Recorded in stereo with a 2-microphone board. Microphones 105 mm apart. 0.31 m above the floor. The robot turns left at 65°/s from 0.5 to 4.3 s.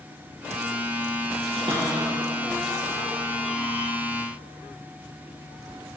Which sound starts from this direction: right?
A cupboard door, at 1.6 s.